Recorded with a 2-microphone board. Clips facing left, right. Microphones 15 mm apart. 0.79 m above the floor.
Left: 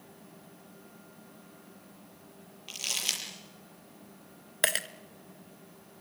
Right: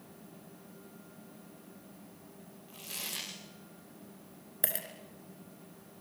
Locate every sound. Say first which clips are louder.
2.7 s crumpling: left 10 dB; 65° left (ahead or behind), 7.5 m
4.6 s a dropped coin: left 10 dB; 45° left (ahead or behind), 0.9 m